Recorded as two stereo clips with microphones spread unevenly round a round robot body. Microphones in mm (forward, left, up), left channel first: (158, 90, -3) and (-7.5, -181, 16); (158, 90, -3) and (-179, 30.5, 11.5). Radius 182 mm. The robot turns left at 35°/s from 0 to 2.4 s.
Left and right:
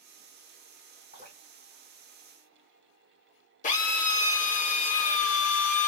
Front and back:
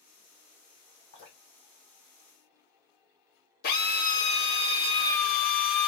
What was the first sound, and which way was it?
Dripping, 50° right.